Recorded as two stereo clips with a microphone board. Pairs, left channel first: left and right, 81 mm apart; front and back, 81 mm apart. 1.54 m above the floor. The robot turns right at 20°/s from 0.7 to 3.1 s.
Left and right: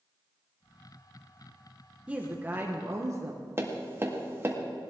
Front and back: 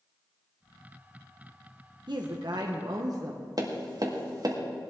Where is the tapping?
150° right, 1.8 m.